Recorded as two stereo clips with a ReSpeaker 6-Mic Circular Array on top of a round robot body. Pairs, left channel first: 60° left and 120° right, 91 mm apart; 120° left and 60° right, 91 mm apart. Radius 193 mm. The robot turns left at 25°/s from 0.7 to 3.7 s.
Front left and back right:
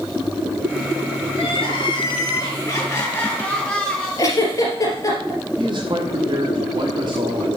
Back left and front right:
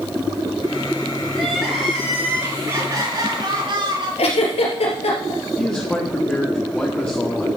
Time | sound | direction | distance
1.3 | crying | 35° left | 5 m
4.2 | a giggle | 115° left | 3 m
5.6 | a man speaking | 160° right | 1.8 m